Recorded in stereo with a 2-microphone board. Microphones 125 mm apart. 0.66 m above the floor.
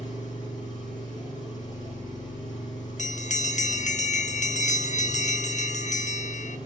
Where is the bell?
75° left (ahead or behind), 0.6 m.